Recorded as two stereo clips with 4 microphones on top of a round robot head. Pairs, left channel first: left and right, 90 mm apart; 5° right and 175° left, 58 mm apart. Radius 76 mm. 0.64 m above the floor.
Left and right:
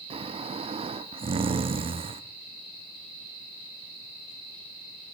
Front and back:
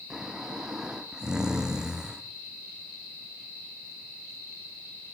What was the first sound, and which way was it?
Snoring, 105° right.